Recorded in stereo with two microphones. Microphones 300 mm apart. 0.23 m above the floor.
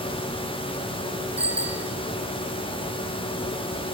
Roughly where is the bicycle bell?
Centre.